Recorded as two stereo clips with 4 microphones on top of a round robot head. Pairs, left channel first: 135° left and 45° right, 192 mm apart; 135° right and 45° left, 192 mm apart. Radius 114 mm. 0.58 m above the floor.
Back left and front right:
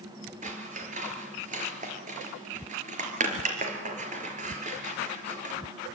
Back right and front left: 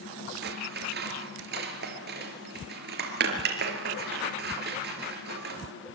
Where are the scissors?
5° left, 4.5 m.